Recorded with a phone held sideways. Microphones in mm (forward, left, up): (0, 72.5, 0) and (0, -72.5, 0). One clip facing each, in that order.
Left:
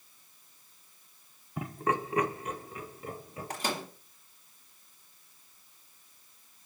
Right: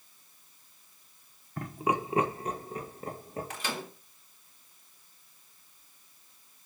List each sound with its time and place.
1.6 s laughter: 10° left (ahead or behind), 1.0 m; by 3.5 s 45° right (ahead or behind), 3 m
3.5 s a microwave: 40° left (ahead or behind), 3 m